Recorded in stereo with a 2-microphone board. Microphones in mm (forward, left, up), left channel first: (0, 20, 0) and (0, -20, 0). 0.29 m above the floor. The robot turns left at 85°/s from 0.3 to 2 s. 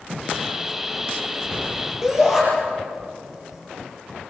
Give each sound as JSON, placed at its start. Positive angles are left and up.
{"t": 2.0, "sound": "a shout", "side_deg": -10, "distance_m": 6.5}